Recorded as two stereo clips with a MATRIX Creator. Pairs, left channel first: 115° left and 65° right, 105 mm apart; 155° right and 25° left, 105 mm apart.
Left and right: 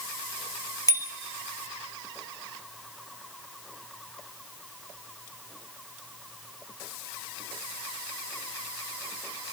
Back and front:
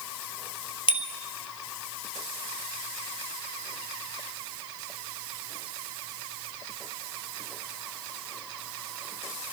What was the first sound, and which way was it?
A bicycle bell, 170° left.